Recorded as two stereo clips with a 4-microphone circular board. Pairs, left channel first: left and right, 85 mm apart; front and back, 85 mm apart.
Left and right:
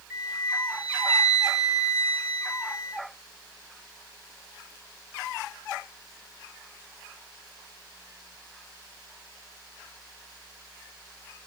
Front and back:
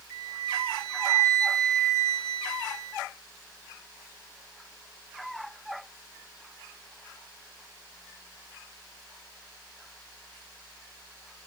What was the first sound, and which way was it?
A flute, 75° right.